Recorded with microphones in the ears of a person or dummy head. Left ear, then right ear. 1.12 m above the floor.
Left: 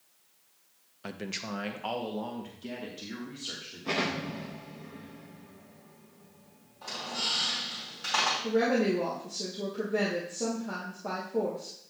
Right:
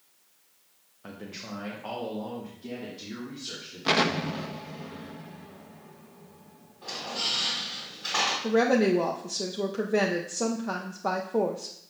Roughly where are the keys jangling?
No keys jangling in this recording.